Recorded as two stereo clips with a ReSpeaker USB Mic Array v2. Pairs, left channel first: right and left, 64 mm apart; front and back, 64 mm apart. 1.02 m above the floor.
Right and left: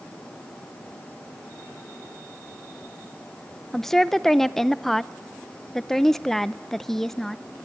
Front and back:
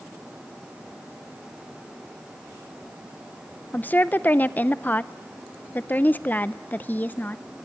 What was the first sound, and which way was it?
A woman speaking, 10° right.